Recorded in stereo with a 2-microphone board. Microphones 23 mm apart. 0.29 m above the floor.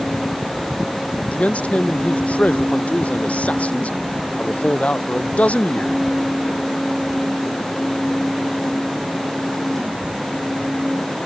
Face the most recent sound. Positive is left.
turn(degrees=70)  # may be behind; listen again after turning